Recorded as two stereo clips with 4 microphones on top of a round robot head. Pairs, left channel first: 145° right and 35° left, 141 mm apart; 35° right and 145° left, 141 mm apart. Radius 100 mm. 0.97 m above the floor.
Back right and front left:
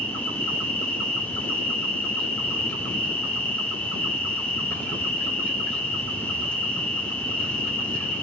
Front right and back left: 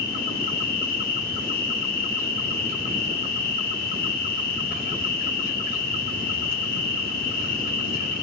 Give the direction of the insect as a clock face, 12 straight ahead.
2 o'clock.